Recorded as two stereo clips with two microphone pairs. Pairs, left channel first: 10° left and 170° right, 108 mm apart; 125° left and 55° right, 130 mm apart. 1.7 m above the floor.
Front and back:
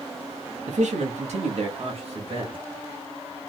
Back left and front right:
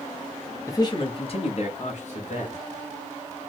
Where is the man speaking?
165° right, 0.6 m; by 2.6 s 155° left, 1.4 m.